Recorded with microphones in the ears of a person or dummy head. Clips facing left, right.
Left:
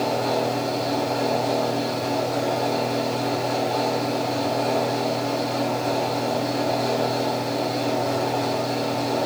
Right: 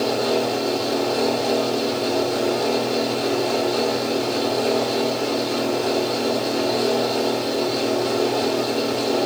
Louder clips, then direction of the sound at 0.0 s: Right 2 dB; 50° right (ahead or behind).